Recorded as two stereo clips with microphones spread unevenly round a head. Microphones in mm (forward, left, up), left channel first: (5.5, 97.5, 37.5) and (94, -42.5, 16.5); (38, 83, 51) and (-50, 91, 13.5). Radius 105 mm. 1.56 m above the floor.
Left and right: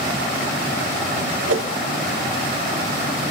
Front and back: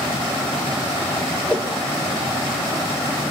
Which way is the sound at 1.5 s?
80° right.